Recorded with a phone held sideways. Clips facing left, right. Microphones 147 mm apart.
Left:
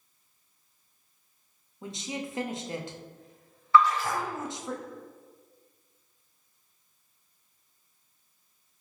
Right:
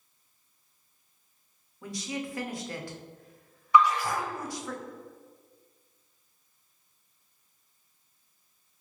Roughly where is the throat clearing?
I don't hear throat clearing.